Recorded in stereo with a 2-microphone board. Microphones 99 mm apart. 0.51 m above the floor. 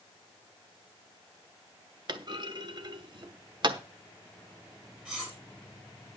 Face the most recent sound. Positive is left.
turn(degrees=-10)  # may be behind; listen again after turning